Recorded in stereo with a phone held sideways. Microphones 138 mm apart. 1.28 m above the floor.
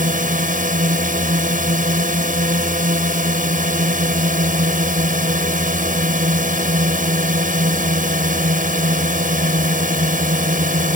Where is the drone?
75° right (ahead or behind).